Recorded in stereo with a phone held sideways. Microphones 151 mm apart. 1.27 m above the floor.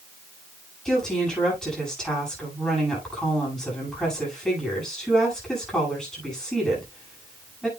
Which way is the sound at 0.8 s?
5° left (ahead or behind).